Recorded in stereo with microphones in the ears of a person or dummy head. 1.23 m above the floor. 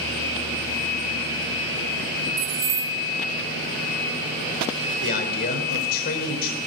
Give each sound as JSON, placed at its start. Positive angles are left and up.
{"t": 2.4, "sound": "keys jangling", "side_deg": -55, "distance_m": 0.9}
{"t": 5.0, "sound": "a man speaking", "side_deg": 60, "distance_m": 4.5}